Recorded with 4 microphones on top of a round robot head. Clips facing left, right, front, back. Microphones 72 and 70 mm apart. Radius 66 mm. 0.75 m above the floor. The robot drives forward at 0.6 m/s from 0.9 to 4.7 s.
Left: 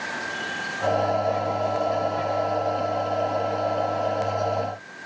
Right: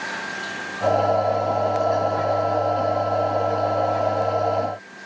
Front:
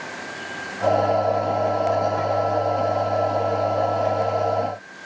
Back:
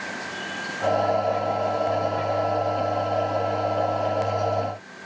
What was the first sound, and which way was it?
Only background noise.